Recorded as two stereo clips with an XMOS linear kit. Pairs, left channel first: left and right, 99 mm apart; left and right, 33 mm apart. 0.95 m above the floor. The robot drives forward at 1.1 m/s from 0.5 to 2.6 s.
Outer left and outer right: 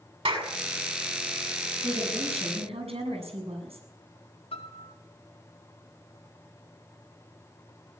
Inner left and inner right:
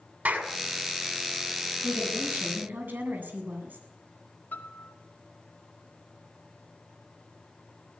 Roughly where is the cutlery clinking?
I don't hear cutlery clinking.